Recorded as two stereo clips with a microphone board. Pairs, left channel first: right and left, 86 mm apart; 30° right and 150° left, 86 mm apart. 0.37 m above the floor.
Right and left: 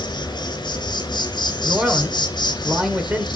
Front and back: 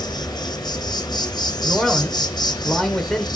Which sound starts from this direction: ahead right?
An insect, at 0.0 s.